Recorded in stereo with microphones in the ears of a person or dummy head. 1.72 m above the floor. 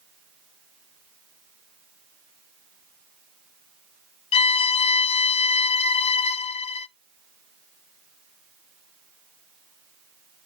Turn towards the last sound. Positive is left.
turn(degrees=30)  # may be behind; listen again after turning